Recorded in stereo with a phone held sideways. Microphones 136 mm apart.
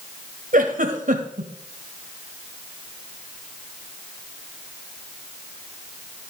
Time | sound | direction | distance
0.5 | a giggle | 75° right (ahead or behind) | 1.2 m